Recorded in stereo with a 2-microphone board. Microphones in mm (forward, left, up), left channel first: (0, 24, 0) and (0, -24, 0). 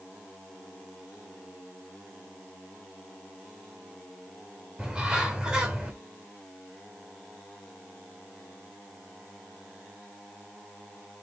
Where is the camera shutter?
No camera shutter in this recording.